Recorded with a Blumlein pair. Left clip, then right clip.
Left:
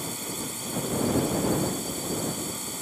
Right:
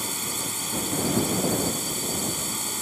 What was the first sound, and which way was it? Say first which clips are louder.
A drone: right 4 dB; 20° right.